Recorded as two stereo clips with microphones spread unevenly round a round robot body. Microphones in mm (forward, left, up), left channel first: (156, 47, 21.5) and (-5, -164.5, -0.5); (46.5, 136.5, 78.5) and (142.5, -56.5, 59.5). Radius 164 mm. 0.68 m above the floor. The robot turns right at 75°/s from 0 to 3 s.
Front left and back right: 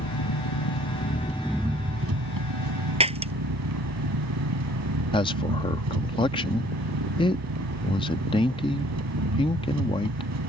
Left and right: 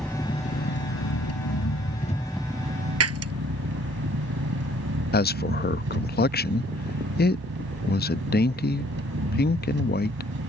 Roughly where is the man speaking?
Behind left.